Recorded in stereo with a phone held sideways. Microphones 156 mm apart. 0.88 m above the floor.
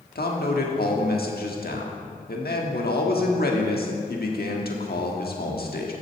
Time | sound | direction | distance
0.1 | a man speaking | 80° left | 1.4 m